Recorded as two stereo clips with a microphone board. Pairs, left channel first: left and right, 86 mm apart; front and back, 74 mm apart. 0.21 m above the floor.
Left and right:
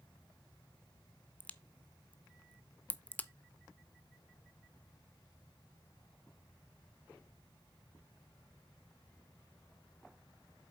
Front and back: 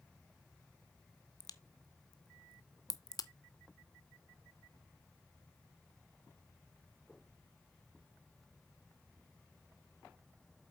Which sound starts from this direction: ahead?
A crack, at 1.4 s.